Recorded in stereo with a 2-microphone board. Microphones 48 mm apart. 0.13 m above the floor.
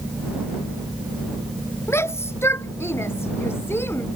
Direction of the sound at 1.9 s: 55° left (ahead or behind).